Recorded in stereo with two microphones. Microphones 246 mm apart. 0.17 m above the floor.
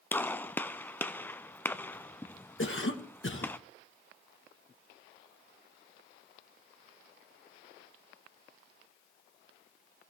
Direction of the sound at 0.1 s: 10° left (ahead or behind).